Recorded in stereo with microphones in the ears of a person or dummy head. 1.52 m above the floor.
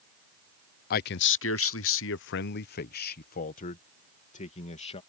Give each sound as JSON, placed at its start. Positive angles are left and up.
{"t": 0.9, "sound": "a man speaking", "side_deg": 55}